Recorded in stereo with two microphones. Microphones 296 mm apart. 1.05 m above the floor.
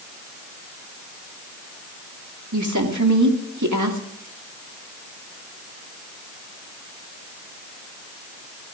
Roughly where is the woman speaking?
Right.